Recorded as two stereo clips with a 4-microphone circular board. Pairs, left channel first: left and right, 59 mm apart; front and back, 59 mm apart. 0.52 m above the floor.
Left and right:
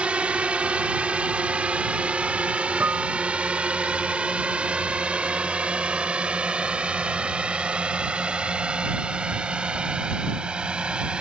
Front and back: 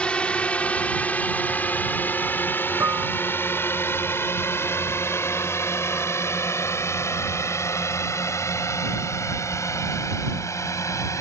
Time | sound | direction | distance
0.0 | a drone | 45° right | ?
2.8 | dishes clattering | 145° right | ?